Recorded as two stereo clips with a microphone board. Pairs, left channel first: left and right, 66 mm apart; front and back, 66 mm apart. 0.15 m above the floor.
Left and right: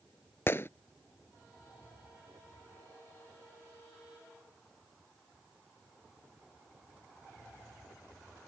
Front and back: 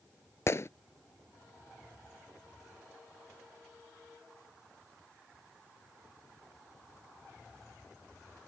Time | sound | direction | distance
0.5 | a gunshot | 40° left | ?